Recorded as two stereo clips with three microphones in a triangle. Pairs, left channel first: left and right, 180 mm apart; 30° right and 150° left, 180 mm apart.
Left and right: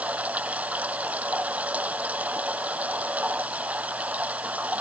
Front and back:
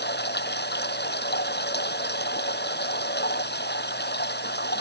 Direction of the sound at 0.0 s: 10° right.